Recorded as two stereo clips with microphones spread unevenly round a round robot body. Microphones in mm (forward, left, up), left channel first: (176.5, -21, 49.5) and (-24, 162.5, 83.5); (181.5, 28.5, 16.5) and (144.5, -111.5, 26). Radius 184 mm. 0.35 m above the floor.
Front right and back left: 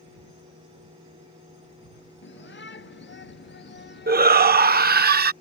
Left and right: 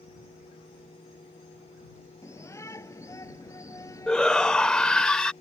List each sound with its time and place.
2.2 s a shout: 5° left; by 5.1 s 10° left
4.1 s a shout: 150° left